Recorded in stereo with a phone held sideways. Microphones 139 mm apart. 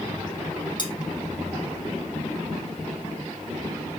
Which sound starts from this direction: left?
Cutlery clinking, at 0.8 s.